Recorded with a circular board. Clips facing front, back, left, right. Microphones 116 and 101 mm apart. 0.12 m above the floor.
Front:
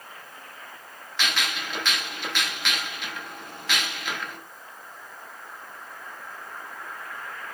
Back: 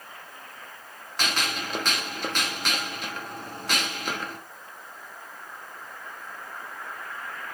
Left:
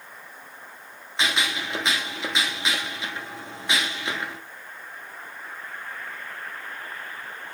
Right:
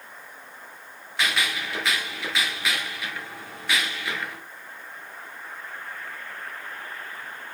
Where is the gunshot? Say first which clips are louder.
Back 1 dB, left 1 dB; 150° left, 0.9 m.